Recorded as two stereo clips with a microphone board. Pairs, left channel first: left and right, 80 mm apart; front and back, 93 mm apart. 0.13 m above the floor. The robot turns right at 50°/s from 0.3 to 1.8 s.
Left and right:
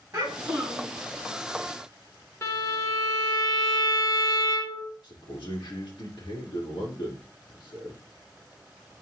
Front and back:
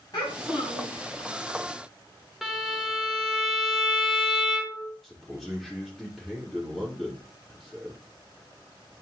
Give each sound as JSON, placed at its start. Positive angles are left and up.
{"t": 0.1, "sound": "a child speaking", "azimuth_deg": -45, "distance_m": 4.5}
{"t": 2.4, "sound": "a violin", "azimuth_deg": 95, "distance_m": 1.5}
{"t": 5.0, "sound": "a man speaking", "azimuth_deg": 90, "distance_m": 2.5}